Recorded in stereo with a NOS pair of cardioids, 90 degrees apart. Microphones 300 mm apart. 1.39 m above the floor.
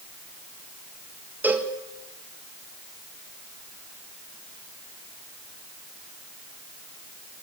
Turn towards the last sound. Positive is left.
turn(degrees=-5)